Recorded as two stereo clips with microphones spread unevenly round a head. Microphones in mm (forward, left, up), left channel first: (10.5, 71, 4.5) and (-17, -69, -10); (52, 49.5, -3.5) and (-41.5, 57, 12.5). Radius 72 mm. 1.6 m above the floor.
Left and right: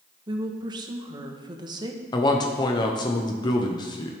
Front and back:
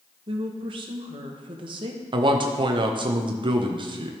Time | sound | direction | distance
0.3 | a woman speaking | 165° right | 1.1 m
2.1 | a man speaking | 140° left | 0.8 m